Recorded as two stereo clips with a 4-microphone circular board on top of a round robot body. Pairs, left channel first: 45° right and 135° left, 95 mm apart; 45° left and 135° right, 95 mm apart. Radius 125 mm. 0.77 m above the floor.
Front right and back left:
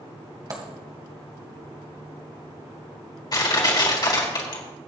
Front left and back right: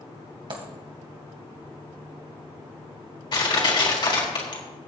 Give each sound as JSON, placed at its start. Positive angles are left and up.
{"t": 0.5, "sound": "a dropped coin", "azimuth_deg": -170, "distance_m": 2.5}
{"t": 3.3, "sound": "crushing", "azimuth_deg": 0, "distance_m": 3.5}